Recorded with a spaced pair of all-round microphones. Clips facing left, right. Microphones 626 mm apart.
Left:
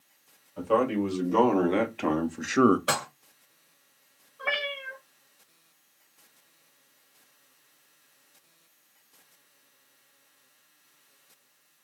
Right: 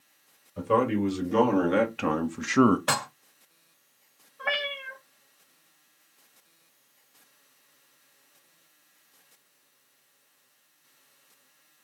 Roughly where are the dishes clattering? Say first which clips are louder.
Left 1 dB; right.